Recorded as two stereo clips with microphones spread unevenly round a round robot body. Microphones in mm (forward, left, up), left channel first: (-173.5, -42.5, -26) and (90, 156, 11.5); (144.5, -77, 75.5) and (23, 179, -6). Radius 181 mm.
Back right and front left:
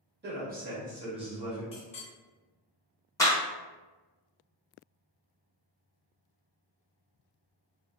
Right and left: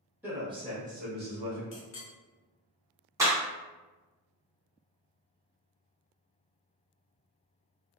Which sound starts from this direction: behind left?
A clap, at 3.2 s.